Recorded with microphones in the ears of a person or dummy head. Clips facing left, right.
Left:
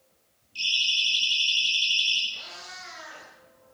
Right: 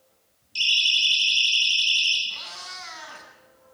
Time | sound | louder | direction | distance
0.6 | a siren | right 4 dB | 55° right (ahead or behind) | 9 m
2.3 | a cat meowing | right 2 dB | 75° right (ahead or behind) | 8.5 m